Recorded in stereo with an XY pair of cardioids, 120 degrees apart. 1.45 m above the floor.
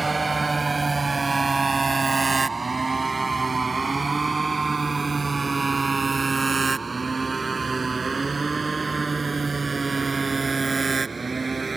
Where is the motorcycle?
20° right.